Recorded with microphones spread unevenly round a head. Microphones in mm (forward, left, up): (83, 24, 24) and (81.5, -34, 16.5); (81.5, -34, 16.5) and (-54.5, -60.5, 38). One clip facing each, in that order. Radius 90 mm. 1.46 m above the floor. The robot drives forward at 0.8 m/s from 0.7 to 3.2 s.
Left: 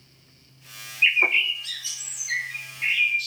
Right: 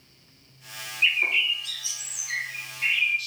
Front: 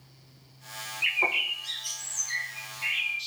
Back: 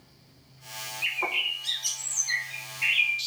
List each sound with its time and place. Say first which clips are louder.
1.0 s a bird: left 3 dB, front 2 dB; 70° left, 0.5 m; by 3.3 s 165° left, 1.7 m